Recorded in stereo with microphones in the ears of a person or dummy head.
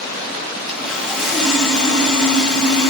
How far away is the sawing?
About 3.5 m.